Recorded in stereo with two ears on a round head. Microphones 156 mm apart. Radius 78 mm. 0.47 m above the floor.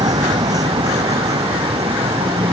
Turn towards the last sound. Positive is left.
turn(degrees=-20)  # may be behind; listen again after turning